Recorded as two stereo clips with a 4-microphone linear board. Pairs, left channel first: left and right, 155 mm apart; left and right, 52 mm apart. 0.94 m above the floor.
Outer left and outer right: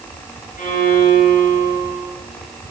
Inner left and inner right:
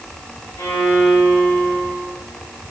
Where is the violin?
65° left (ahead or behind), 3 m.